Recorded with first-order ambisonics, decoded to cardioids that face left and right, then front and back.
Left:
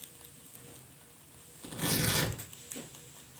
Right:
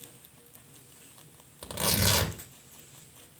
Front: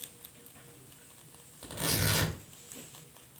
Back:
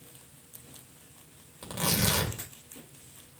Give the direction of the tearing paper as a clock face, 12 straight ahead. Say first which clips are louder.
Right 5 dB, back 3 dB; 4 o'clock.